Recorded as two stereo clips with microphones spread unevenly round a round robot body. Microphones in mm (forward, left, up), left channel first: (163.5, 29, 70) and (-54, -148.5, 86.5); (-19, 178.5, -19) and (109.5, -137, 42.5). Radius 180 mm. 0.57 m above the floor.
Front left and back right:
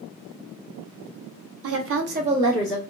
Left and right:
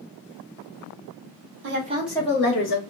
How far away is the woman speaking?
About 0.9 m.